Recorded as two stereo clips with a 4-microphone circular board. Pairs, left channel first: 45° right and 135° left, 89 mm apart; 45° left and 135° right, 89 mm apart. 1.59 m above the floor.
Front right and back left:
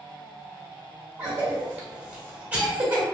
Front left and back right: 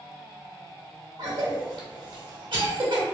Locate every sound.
1.2 s a cough: 150° right, 1.0 m